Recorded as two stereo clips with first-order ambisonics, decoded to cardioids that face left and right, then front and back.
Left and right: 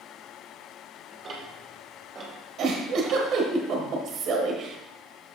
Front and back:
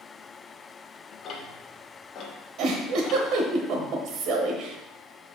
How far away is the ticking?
About 1.4 m.